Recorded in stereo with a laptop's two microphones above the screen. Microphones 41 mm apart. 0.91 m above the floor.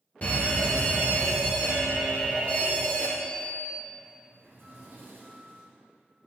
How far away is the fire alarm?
About 1.4 m.